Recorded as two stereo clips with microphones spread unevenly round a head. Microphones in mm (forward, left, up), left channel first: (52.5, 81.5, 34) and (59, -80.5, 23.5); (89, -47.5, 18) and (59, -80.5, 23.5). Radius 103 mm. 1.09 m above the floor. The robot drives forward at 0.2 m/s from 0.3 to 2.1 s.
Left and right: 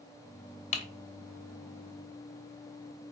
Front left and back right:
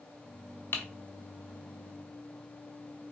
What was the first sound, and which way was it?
Typing on a keyboard, 95° left.